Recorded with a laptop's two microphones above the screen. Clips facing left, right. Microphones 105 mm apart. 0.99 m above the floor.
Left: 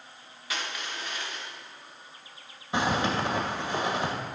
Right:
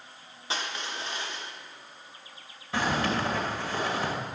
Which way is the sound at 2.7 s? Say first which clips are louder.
Left 1 dB; 20° left (ahead or behind).